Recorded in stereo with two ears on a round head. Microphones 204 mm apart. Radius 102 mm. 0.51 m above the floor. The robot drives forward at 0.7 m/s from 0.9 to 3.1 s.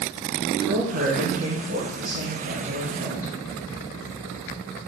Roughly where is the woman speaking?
Right.